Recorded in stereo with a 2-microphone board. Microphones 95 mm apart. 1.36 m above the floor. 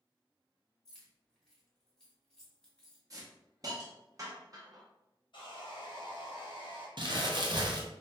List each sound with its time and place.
0.8 s keys jangling: 5° left (ahead or behind), 1.5 m
3.1 s a hiss: 40° right (ahead or behind), 0.8 m
5.3 s sawing: 60° left (ahead or behind), 1.1 m
7.0 s crumpling: 55° right (ahead or behind), 0.5 m